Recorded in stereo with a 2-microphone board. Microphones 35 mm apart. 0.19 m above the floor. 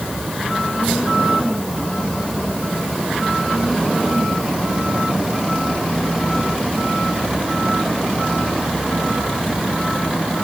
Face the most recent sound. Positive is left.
No sound to turn to.